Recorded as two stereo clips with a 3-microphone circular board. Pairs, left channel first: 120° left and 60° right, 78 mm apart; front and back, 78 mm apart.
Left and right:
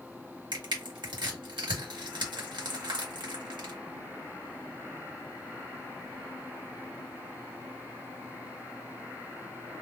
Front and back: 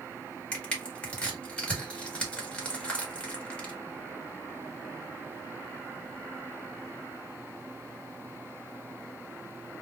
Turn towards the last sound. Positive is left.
turn(degrees=-75)